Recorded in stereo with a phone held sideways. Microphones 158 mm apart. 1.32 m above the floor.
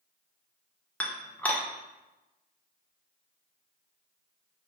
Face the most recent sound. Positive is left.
turn(degrees=10)  # may be behind; listen again after turning